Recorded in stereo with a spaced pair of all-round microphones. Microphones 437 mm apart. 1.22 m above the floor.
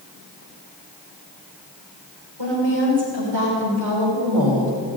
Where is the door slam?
I don't hear a door slam.